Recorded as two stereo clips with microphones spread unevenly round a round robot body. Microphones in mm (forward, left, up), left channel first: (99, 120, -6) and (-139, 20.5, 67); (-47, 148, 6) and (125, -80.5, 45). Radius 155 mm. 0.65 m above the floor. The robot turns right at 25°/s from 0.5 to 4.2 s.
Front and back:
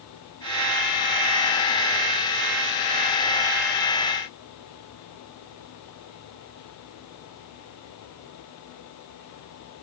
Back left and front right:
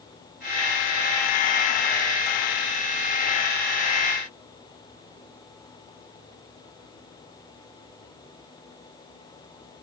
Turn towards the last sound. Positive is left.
No sound to turn to.